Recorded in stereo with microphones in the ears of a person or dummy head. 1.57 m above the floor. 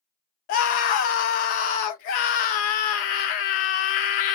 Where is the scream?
45° left (ahead or behind), 0.6 m.